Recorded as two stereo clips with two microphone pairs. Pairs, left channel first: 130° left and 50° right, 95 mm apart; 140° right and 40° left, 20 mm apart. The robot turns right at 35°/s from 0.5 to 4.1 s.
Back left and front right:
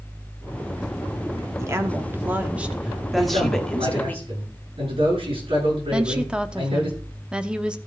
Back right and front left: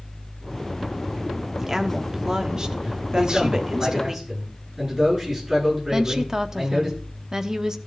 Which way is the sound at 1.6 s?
20° right.